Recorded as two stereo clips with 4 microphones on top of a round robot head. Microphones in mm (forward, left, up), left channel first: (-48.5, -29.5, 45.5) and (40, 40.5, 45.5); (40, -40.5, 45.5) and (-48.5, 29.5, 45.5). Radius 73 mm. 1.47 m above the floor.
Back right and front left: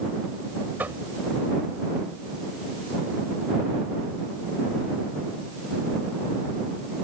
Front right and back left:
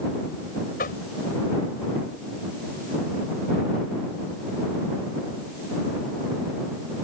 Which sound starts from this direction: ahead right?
Knocking, at 0.8 s.